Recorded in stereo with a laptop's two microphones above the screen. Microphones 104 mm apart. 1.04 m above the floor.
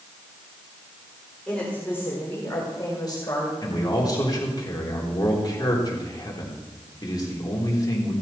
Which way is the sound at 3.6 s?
35° left (ahead or behind).